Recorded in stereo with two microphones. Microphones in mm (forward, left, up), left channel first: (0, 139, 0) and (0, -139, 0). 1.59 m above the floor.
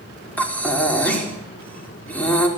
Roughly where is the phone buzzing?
No phone buzzing in this recording.